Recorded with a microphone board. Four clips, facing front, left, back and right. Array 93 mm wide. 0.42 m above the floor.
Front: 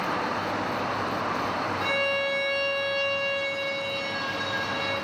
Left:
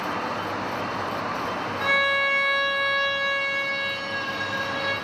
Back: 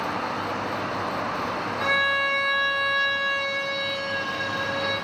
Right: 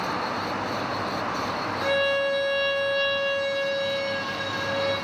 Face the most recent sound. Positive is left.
turn(degrees=145)